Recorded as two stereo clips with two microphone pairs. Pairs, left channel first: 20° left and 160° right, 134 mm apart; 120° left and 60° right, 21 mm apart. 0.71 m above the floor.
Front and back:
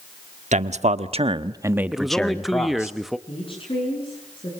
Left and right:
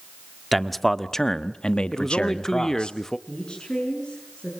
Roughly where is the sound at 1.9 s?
Behind left.